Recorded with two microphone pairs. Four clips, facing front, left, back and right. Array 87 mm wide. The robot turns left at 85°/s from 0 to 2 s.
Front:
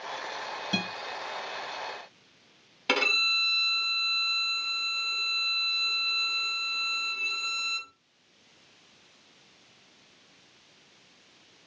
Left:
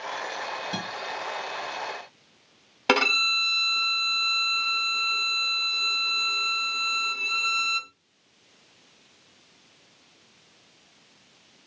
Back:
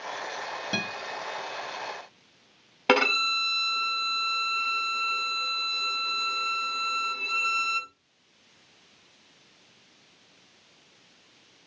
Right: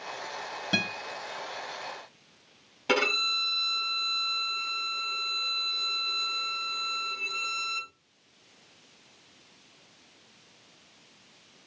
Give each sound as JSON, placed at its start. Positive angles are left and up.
{"t": 0.7, "sound": "a guitar", "azimuth_deg": -100, "distance_m": 4.0}
{"t": 2.9, "sound": "a violin", "azimuth_deg": 135, "distance_m": 2.5}